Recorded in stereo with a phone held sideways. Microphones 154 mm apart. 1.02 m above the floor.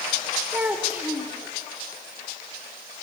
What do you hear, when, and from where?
0.5 s a child speaking: 10° right (ahead or behind), 2.5 m